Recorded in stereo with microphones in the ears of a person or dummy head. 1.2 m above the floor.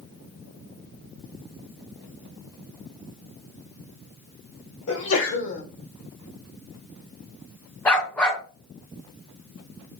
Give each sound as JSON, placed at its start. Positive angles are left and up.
{"t": 4.9, "sound": "a sneeze", "side_deg": 70, "distance_m": 2.5}
{"t": 7.8, "sound": "a dog barking", "side_deg": 10, "distance_m": 1.8}